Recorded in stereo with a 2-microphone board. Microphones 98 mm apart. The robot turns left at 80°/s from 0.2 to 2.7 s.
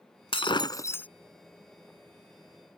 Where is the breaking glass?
75° left; by 1.1 s 15° left.